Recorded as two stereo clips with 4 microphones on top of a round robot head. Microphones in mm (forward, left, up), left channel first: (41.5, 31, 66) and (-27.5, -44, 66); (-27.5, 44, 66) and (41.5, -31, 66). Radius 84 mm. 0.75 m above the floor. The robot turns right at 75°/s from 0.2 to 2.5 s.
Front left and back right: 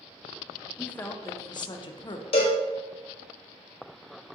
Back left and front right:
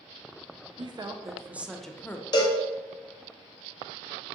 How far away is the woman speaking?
About 0.6 m.